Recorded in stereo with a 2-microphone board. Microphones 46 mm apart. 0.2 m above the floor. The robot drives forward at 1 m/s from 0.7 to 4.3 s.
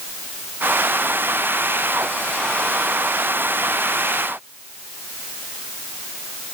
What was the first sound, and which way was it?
Only background noise.